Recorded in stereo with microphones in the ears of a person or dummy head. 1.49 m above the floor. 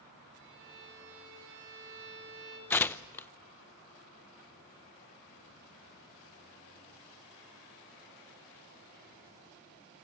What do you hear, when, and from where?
0.4 s a violin: 70° right (ahead or behind), 6.5 m
2.7 s tearing paper: 10° left (ahead or behind), 0.7 m